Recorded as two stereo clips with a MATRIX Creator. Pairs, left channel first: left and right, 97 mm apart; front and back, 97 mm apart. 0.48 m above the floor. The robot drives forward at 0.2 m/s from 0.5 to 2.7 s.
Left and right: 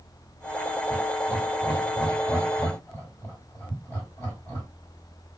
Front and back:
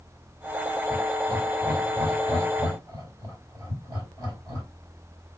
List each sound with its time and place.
0.9 s laughter: 140° left, 1.8 m; by 4.7 s 150° left, 2 m